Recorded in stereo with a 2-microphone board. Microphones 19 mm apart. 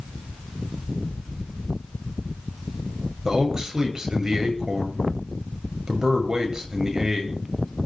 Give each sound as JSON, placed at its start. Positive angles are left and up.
{"t": 3.2, "sound": "a man speaking", "side_deg": -30, "distance_m": 8.0}